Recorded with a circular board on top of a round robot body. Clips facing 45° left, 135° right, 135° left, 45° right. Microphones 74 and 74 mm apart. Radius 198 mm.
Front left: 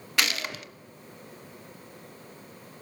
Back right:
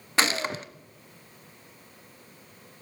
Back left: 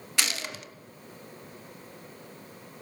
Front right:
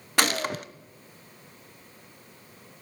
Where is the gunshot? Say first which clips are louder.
Back right 4 dB, front right 8 dB; 80° right, 1.3 m.